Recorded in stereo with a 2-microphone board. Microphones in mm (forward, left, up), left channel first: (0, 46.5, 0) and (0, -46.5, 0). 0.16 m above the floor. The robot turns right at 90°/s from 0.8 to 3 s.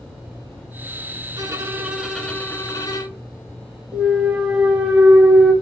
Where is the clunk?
15° right (ahead or behind), 1.3 m.